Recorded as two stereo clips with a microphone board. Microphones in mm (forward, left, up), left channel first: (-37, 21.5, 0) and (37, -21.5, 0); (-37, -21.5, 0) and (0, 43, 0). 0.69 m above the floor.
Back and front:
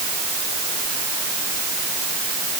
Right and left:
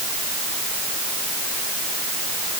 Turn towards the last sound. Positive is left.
No sound to turn to.